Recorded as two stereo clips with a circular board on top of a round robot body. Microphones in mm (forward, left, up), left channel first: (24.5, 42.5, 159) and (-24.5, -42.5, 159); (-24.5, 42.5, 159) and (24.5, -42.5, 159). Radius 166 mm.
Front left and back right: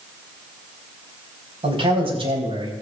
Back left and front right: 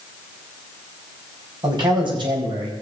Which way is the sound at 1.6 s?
100° right.